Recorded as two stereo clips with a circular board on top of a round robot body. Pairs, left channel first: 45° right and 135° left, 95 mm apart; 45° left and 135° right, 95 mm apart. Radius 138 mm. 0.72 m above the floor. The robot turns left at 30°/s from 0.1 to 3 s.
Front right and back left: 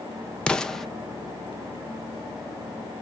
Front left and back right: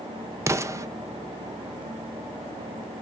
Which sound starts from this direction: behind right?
An explosion, at 0.5 s.